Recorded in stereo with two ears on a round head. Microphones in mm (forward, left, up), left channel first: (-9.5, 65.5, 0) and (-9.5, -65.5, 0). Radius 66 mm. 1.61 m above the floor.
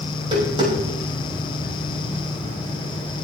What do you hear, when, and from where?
0.1 s tapping: 35° right (ahead or behind), 6 m